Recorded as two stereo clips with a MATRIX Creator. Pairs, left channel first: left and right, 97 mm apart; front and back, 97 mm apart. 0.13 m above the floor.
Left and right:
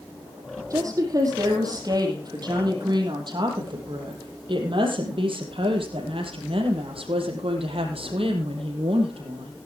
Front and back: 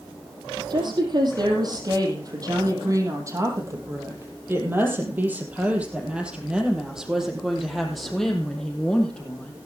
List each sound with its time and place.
0.7 s a woman speaking: 140° right, 5 m; by 9.5 s 80° right, 5 m